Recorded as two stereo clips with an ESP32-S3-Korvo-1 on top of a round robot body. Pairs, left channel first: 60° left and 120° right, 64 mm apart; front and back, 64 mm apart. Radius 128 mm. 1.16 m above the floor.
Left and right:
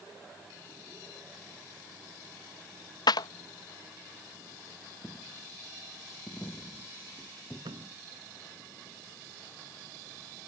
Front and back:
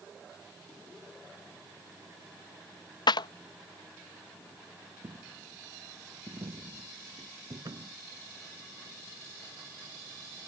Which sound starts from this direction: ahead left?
A clap, at 3.1 s.